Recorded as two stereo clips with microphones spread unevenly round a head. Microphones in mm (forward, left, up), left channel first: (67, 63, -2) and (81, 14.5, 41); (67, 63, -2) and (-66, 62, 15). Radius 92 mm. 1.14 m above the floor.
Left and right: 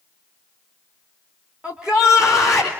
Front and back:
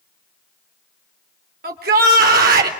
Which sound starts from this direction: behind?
A shout, at 1.6 s.